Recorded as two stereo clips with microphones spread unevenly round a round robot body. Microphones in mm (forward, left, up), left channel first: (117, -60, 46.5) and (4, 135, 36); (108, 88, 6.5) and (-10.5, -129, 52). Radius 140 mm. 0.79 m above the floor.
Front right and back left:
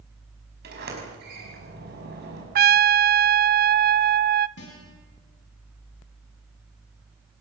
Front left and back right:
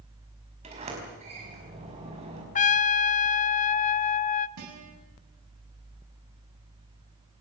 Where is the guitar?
105° right, 7.5 m.